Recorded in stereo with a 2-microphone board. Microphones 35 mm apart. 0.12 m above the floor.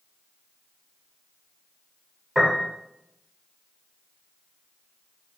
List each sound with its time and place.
2.4 s a piano: 5° right (ahead or behind), 3.5 m